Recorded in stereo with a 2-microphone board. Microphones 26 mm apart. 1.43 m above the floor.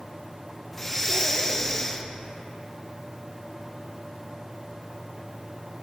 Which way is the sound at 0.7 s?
15° left (ahead or behind).